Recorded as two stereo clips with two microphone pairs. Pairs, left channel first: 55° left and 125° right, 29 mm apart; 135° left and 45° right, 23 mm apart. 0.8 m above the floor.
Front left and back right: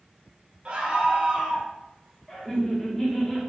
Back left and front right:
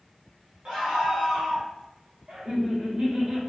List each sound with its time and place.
0.7 s a scream: 100° right, 0.8 m; by 1.7 s 95° right, 1.9 m
2.3 s laughter: 20° right, 1.8 m